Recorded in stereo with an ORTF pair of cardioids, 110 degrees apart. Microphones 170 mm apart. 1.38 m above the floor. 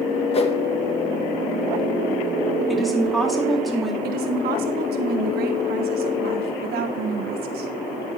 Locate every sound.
0.3 s a whoosh: 35° left, 1.1 m
2.7 s a woman speaking: straight ahead, 2.5 m
4.0 s a woman speaking: 70° right, 1.7 m